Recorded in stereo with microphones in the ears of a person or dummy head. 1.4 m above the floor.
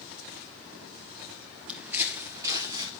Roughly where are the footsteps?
Centre.